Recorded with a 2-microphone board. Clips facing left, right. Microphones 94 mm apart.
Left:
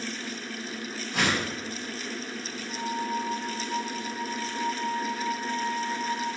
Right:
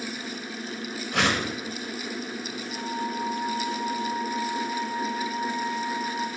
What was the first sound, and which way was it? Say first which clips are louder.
A whoosh: right 2 dB; 70° right (ahead or behind).